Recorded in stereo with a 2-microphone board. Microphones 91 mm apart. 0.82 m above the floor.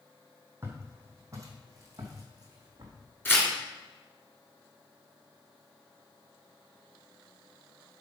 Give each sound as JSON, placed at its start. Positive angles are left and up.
{"t": 0.6, "sound": "footsteps", "side_deg": -25, "distance_m": 2.0}
{"t": 3.2, "sound": "tearing paper", "side_deg": 20, "distance_m": 2.5}